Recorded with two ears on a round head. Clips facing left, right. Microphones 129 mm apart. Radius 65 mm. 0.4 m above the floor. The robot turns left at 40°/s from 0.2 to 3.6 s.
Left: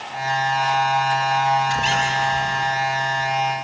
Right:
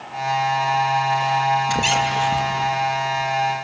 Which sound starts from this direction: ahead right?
A squeak, at 1.7 s.